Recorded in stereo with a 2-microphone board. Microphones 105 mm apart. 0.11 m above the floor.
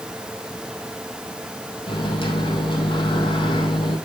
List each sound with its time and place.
1.9 s a microwave: 55° left (ahead or behind), 3.5 m